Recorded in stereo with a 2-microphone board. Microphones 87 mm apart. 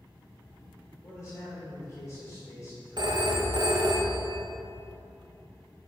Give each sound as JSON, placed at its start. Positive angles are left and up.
{"t": 1.0, "sound": "a man speaking", "side_deg": 30, "distance_m": 1.4}
{"t": 3.0, "sound": "a phone ringing", "side_deg": -55, "distance_m": 0.6}